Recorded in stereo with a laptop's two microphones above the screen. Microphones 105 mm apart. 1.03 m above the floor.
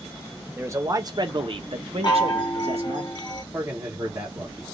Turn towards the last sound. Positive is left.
turn(degrees=-35)  # may be behind; listen again after turning